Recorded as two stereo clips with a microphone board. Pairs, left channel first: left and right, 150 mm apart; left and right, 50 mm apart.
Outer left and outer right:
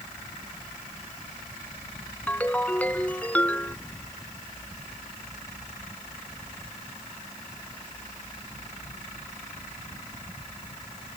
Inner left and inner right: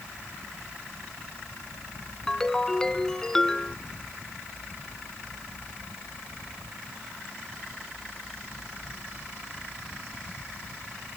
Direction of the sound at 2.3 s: 10° left (ahead or behind).